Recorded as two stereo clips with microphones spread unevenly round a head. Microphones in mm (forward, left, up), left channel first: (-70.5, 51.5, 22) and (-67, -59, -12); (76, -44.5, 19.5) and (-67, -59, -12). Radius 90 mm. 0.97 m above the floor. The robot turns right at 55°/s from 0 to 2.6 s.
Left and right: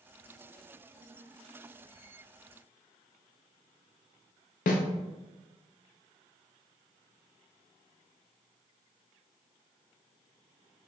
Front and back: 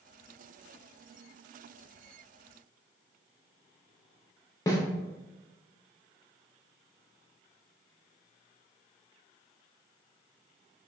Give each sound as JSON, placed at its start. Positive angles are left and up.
{"t": 4.7, "sound": "a snare drum", "azimuth_deg": 85, "distance_m": 0.5}